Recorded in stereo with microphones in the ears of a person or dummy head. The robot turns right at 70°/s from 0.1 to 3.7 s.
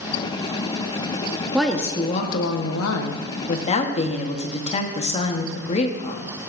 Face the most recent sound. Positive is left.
turn(degrees=145)